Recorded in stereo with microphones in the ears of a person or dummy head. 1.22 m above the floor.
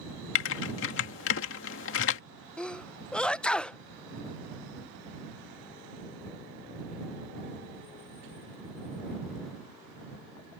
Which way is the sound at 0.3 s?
60° left (ahead or behind).